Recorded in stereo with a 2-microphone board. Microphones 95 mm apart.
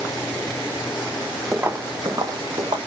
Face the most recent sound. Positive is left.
turn(degrees=-55)  # may be behind; listen again after turning